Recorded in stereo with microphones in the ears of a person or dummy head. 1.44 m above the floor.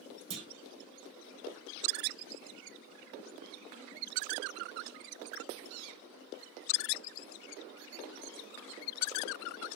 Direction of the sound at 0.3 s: 25° right (ahead or behind).